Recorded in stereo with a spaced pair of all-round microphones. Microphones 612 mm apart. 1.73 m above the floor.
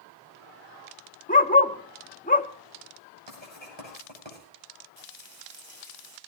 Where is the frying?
25° right (ahead or behind), 5 m.